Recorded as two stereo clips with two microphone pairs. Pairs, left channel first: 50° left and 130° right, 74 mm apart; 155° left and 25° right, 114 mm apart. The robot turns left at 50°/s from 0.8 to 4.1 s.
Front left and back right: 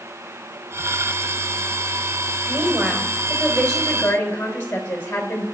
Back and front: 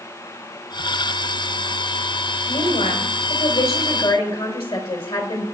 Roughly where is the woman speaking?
Behind.